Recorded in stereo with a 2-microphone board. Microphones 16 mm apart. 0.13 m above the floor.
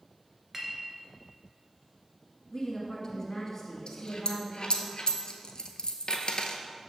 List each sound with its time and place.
0.5 s a clink: 25° right (ahead or behind), 1.1 m
2.5 s a woman speaking: 20° left (ahead or behind), 1.5 m
3.9 s a dropped coin: 60° left (ahead or behind), 0.8 m